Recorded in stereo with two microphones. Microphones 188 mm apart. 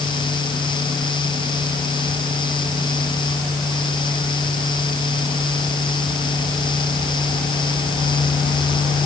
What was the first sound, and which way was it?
Only background noise.